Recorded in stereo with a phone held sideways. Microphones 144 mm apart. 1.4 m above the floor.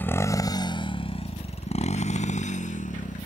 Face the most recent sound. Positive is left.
turn(degrees=60)  # may be behind; listen again after turning